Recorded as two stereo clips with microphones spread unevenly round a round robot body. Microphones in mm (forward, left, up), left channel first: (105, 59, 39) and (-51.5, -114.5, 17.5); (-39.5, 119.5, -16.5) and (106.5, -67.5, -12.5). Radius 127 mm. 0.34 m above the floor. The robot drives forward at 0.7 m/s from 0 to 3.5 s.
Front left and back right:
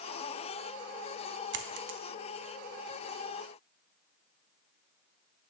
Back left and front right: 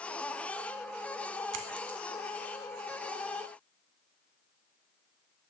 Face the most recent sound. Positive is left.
turn(degrees=-160)